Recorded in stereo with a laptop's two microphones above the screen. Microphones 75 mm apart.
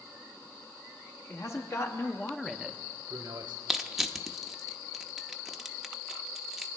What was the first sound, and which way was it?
A man speaking, 45° left (ahead or behind).